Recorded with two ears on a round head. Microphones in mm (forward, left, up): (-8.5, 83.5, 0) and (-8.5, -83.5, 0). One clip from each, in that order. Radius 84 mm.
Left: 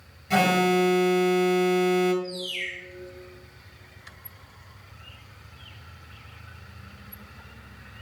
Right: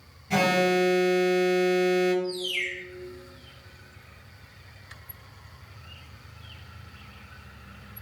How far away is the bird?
About 3.5 m.